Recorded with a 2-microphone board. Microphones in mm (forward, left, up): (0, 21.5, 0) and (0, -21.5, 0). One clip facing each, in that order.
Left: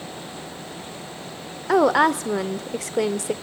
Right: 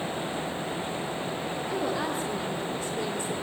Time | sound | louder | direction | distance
1.7 | a woman speaking | left 14 dB | 85° left | 0.6 m